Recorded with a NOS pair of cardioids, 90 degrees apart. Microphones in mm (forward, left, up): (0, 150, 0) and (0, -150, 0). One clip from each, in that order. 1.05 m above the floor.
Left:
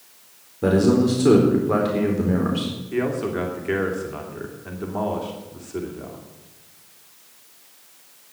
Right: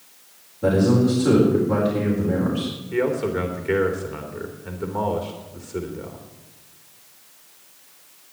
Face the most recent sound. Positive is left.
turn(degrees=0)